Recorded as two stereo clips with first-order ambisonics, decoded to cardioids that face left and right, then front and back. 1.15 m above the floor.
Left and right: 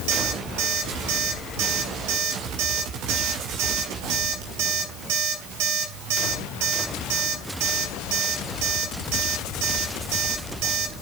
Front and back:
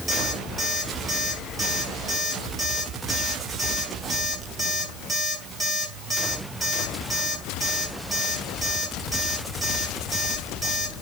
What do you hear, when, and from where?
0.1 s an alarm clock: 95° right, 5.5 m